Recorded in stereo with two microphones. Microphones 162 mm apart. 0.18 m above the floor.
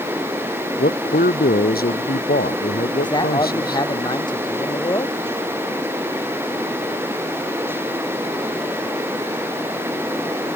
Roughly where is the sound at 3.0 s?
Left.